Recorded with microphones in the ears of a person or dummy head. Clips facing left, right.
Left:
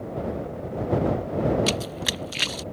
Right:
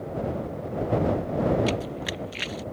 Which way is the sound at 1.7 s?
60° left (ahead or behind).